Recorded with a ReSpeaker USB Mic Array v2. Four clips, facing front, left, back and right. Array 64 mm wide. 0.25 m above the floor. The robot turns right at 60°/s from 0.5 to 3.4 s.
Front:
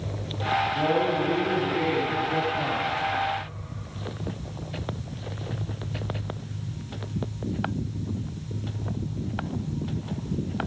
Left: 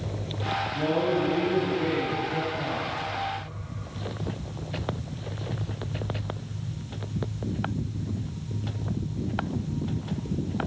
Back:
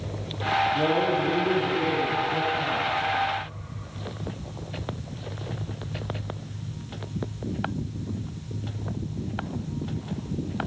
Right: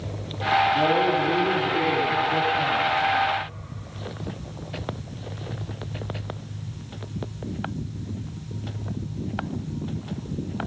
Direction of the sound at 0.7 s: 160° right.